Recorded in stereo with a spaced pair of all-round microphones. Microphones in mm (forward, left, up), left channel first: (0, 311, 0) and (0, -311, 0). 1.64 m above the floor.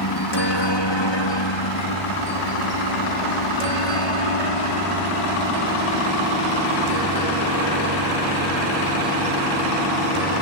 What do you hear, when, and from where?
0.0 s a helicopter: 40° left (ahead or behind); by 10.4 s 70° left (ahead or behind)